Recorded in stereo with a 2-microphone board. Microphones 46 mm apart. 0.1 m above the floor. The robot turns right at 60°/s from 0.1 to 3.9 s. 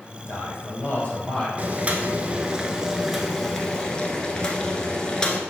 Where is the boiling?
100° right, 1.0 m; by 5.4 s 40° left, 1.0 m.